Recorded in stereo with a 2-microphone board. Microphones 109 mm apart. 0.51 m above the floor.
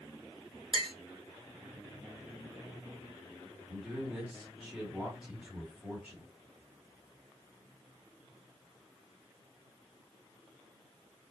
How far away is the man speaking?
About 1.6 m.